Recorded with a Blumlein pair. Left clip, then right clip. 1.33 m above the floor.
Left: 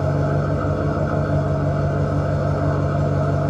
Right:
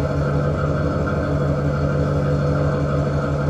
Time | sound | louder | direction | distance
0.0 | an engine running | even | 30° right | 1.2 m